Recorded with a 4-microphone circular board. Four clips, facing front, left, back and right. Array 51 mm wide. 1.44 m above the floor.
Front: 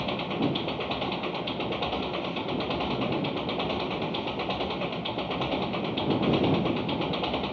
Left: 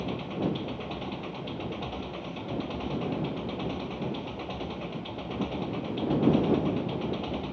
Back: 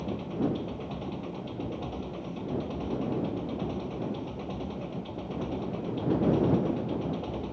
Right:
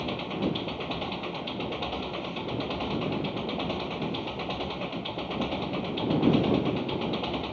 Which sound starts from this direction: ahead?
An engine running, at 0.0 s.